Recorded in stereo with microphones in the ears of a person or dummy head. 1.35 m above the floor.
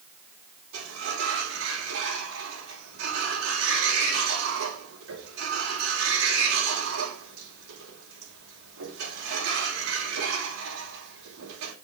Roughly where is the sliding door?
Right.